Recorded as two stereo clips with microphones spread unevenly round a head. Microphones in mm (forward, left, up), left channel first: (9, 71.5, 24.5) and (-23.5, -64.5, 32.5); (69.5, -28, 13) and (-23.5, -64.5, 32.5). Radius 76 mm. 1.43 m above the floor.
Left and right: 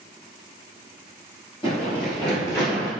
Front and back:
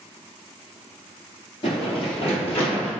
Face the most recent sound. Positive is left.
turn(degrees=5)